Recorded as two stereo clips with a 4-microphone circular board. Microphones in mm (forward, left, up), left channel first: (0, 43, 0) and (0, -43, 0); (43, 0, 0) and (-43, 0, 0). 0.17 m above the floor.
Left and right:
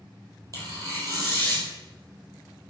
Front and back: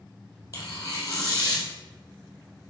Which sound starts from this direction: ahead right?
Tearing paper, at 0.5 s.